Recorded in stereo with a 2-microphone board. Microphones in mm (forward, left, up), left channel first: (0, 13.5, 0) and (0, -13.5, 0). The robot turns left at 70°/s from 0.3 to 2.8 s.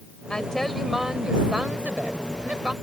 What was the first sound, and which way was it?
A woman speaking, 30° left.